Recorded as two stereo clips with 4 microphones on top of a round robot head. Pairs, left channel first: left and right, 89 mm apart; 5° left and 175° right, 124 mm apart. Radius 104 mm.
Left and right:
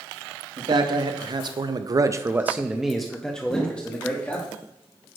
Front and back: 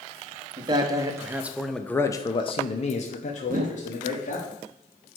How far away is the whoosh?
About 0.6 m.